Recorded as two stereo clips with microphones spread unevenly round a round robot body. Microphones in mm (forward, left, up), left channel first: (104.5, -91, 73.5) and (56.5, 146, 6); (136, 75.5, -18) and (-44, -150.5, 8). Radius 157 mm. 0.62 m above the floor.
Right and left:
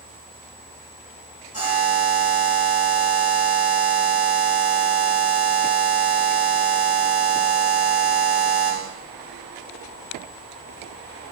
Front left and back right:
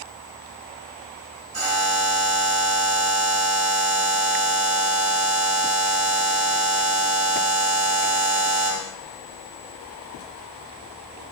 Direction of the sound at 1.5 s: 165° left.